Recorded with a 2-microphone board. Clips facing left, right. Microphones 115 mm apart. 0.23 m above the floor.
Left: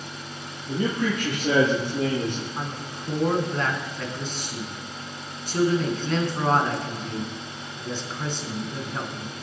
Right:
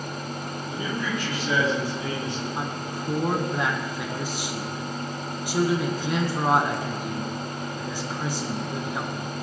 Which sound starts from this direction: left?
A man speaking, at 0.7 s.